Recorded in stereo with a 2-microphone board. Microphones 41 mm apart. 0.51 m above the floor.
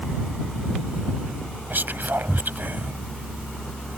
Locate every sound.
1.7 s whispering: 55° right (ahead or behind)